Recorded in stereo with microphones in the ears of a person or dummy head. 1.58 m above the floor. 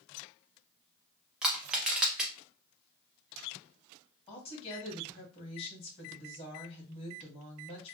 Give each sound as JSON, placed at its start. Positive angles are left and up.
{"t": 1.4, "sound": "crushing", "side_deg": -5, "distance_m": 0.6}
{"t": 4.3, "sound": "a woman speaking", "side_deg": 35, "distance_m": 1.4}